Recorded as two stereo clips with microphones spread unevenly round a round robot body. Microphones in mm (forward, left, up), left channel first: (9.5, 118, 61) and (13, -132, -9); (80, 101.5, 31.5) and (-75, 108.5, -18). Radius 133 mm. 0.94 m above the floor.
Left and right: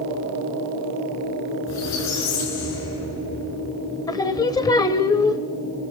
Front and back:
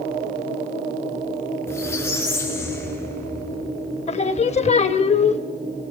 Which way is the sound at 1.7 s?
70° left.